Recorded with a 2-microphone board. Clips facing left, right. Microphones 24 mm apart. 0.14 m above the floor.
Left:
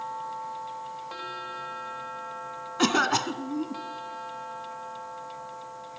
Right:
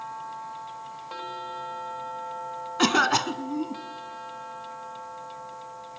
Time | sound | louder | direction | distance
2.8 | a cough | right 2 dB | 15° right (ahead or behind) | 1.3 m